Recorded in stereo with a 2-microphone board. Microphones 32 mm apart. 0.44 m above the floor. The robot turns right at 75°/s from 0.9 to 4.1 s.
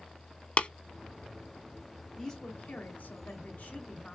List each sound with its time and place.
0.6 s tapping: 45° left (ahead or behind), 0.7 m
2.2 s a woman speaking: 15° left, 4 m; by 4.2 s 160° left, 4 m